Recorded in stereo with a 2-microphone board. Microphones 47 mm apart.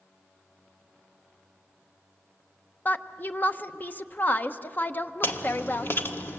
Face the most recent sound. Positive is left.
turn(degrees=55)  # may be behind; listen again after turning